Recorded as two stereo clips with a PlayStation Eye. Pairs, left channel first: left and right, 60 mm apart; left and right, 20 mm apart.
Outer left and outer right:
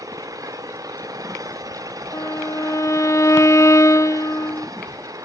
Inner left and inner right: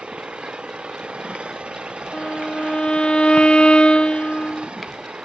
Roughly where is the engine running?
Right.